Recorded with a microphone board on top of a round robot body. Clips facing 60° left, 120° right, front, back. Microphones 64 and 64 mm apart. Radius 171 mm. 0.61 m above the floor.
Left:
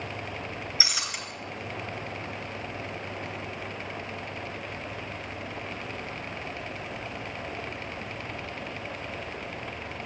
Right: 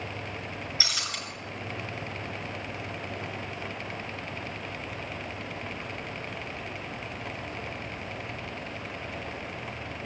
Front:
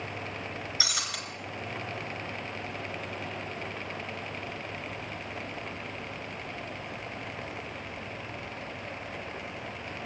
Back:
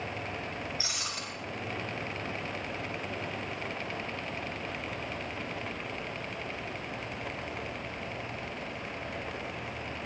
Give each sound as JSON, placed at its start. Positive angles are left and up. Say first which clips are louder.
{"t": 0.8, "sound": "breaking glass", "louder": "left 1 dB, front 3 dB", "azimuth_deg": -20, "distance_m": 5.0}